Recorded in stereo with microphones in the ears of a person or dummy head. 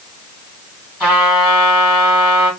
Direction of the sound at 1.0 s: 5° right (ahead or behind).